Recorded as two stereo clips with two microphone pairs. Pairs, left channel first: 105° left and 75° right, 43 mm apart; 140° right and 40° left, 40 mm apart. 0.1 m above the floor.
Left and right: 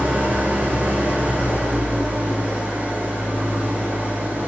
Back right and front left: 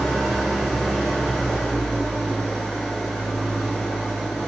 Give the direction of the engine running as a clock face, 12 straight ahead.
2 o'clock.